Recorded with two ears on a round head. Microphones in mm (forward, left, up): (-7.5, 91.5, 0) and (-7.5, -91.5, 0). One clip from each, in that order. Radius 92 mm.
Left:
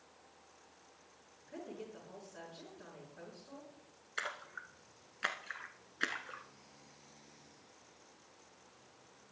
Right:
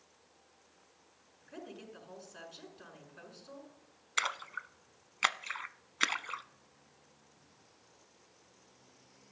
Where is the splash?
65° right (ahead or behind), 0.7 m.